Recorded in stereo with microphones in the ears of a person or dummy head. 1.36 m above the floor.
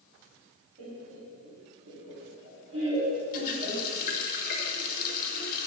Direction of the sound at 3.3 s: 50° left (ahead or behind).